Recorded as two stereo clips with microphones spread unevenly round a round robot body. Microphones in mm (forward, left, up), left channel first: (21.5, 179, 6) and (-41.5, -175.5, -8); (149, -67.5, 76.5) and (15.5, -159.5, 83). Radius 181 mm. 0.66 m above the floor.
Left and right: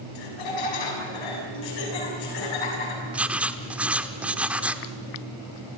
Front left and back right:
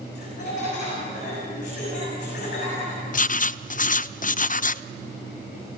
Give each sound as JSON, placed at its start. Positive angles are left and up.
{"t": 0.1, "sound": "laughter", "azimuth_deg": 90, "distance_m": 6.5}
{"t": 3.1, "sound": "writing", "azimuth_deg": -15, "distance_m": 0.5}